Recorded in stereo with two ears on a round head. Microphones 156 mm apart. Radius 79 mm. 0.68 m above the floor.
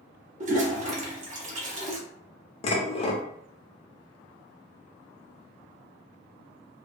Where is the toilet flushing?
40° right (ahead or behind), 0.7 m.